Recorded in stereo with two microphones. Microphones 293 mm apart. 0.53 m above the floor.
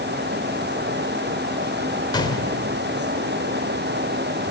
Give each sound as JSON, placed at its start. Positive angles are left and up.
{"t": 2.1, "sound": "a gunshot", "side_deg": 15, "distance_m": 2.0}